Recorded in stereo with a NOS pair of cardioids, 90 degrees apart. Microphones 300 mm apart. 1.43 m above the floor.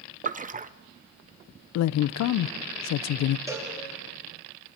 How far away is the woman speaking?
About 0.6 m.